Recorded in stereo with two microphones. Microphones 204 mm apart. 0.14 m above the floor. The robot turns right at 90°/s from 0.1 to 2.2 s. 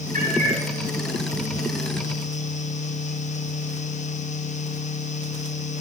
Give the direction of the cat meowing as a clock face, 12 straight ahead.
5 o'clock.